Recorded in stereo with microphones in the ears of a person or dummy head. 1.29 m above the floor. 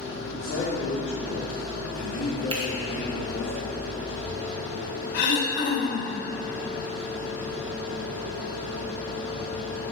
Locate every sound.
0.2 s a man speaking: 40° left (ahead or behind), 2.5 m
2.5 s a finger snap: 20° right (ahead or behind), 0.9 m
5.1 s throat clearing: 60° left (ahead or behind), 1.4 m